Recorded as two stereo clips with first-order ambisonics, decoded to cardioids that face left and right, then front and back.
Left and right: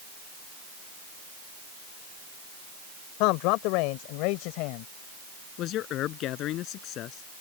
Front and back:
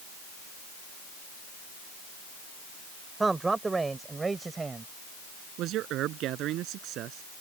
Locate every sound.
3.2 s a man speaking: 100° left; by 4.9 s 105° left
5.6 s a man speaking: 135° left